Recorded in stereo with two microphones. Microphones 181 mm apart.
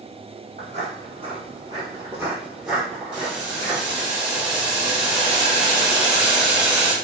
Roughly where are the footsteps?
Right.